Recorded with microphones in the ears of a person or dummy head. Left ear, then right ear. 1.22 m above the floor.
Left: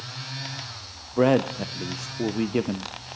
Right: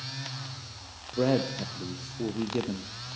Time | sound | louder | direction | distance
1.2 | a man speaking | left 6 dB | 45° left (ahead or behind) | 0.6 m